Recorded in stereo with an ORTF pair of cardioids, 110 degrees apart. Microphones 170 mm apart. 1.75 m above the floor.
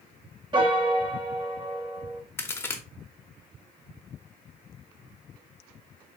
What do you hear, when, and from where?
0.5 s a piano: 30° right, 0.8 m
2.4 s a crack: 15° left, 0.8 m